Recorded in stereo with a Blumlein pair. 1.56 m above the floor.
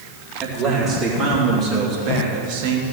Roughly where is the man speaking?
Ahead right.